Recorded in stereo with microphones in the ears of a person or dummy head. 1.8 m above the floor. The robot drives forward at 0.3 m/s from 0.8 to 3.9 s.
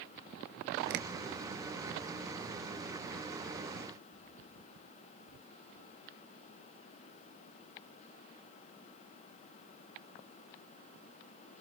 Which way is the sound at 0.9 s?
60° right (ahead or behind).